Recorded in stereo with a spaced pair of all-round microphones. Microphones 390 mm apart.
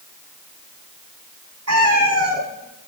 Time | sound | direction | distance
1.7 | a cat meowing | 40° right (ahead or behind) | 4 m